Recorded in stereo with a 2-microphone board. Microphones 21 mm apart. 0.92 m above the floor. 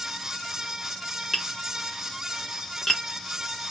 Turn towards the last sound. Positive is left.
turn(degrees=15)  # may be behind; listen again after turning